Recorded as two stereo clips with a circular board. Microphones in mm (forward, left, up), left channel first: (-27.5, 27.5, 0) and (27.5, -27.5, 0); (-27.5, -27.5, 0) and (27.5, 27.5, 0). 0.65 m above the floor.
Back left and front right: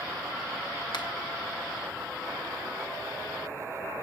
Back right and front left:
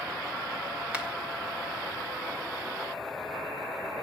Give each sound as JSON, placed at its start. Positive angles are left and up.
{"t": 0.9, "sound": "a finger snap", "azimuth_deg": 120, "distance_m": 1.7}